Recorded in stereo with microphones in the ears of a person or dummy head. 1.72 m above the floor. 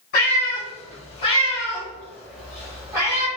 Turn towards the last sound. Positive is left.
turn(degrees=-25)  # may be behind; listen again after turning